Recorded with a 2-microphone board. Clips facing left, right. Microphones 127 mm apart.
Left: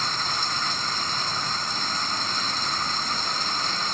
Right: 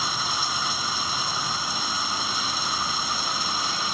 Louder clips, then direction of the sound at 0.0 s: Right 1 dB; 10° right (ahead or behind).